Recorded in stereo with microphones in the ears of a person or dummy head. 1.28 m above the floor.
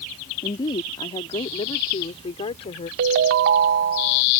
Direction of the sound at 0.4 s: 25° left (ahead or behind).